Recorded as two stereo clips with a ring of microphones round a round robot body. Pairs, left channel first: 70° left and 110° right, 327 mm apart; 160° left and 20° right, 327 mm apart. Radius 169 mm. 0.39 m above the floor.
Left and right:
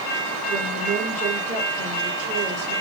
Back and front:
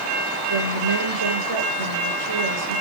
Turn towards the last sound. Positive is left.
turn(degrees=-40)